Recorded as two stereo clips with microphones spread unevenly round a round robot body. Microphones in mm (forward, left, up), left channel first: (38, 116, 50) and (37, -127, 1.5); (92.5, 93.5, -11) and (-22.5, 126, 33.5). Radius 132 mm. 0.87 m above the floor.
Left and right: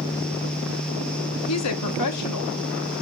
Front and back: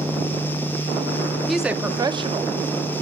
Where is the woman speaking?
65° left, 1.5 m; by 2.5 s 125° left, 1.7 m.